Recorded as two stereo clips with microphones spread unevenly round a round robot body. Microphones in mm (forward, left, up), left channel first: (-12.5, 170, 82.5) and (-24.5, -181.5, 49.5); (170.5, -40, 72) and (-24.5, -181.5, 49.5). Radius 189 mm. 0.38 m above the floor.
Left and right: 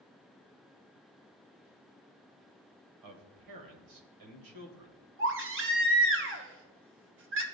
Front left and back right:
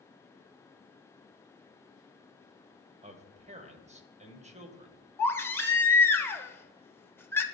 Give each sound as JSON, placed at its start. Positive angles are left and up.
{"t": 3.0, "sound": "a man speaking", "azimuth_deg": -85, "distance_m": 1.8}
{"t": 5.2, "sound": "a baby crying", "azimuth_deg": -50, "distance_m": 1.2}